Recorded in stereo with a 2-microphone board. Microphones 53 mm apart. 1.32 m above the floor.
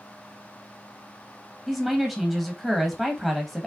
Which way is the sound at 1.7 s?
15° right (ahead or behind).